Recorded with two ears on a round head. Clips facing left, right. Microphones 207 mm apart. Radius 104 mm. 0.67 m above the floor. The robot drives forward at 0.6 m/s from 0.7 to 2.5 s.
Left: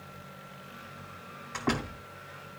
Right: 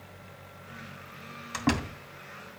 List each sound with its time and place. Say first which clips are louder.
1.5 s a door slam: right 3 dB; 55° right (ahead or behind), 3 m; by 2.0 s 50° right (ahead or behind), 3 m